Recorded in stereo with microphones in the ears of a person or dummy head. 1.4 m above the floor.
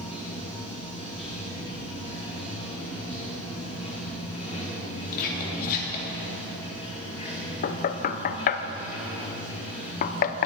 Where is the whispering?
45° left (ahead or behind), 3 m.